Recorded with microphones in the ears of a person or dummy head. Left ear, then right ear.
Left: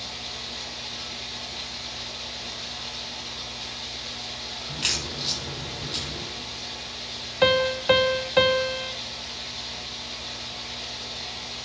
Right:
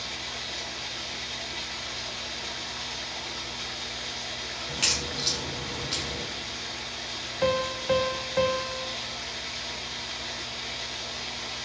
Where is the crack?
30° right (ahead or behind), 7 m.